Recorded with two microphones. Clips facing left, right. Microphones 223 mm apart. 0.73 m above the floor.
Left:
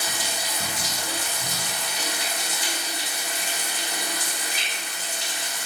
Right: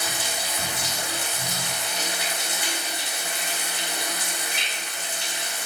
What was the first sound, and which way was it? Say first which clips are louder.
Running water: right 1 dB; 65° right (ahead or behind).